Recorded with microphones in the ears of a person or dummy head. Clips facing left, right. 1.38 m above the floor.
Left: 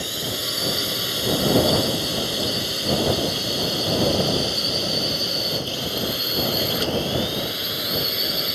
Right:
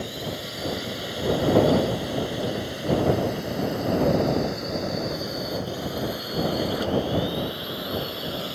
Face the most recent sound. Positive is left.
turn(degrees=30)  # may be behind; listen again after turning